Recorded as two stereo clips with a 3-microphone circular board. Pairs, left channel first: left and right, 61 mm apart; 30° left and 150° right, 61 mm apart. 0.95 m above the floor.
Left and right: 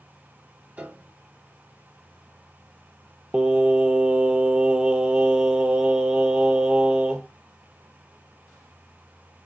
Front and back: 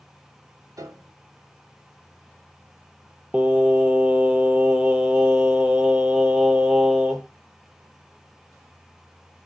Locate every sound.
0.8 s a piano: 155° right, 0.6 m
3.3 s singing: 115° right, 0.6 m